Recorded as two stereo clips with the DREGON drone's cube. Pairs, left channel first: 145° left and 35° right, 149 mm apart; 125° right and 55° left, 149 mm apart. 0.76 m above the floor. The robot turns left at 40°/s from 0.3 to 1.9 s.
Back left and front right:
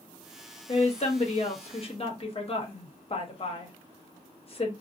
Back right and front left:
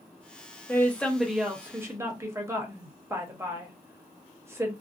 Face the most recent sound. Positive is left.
turn(degrees=120)